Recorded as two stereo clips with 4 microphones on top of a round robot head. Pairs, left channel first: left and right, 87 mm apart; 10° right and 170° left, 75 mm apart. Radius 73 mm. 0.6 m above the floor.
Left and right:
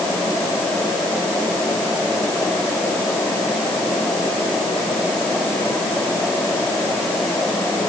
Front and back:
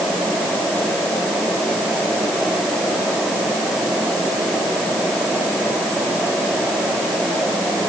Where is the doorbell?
I don't hear a doorbell.